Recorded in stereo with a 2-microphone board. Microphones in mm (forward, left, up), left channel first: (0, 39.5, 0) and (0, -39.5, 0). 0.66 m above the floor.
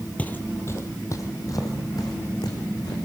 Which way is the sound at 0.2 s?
20° left (ahead or behind).